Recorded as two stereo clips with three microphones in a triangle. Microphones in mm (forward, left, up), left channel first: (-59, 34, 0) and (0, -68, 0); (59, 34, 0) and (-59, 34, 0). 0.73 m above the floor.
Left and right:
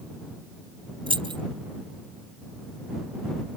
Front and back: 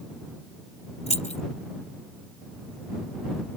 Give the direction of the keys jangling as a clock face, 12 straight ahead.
1 o'clock.